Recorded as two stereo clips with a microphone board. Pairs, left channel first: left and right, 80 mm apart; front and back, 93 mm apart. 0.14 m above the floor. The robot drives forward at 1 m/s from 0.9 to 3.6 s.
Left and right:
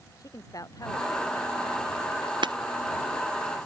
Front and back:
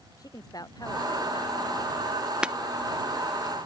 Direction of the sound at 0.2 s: 50° left.